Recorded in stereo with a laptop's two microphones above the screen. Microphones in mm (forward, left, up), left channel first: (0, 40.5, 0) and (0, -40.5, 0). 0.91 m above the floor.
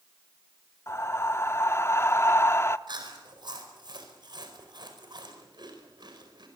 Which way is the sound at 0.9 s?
30° left (ahead or behind).